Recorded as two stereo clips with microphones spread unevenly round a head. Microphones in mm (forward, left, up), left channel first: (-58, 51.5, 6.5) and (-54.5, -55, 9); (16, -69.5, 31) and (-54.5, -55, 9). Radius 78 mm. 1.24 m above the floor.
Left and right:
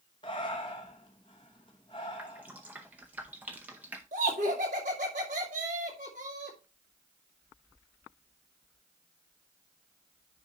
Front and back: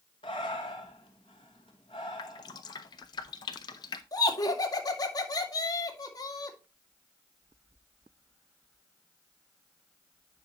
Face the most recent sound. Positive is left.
turn(degrees=-45)